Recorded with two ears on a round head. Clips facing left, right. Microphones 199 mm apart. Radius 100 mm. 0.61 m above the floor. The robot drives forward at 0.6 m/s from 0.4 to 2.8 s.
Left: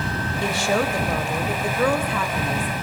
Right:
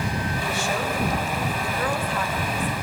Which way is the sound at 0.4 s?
55° left (ahead or behind).